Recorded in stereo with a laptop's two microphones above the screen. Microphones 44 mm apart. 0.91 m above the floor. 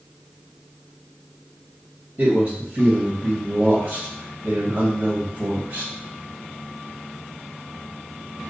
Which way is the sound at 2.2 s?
45° right (ahead or behind).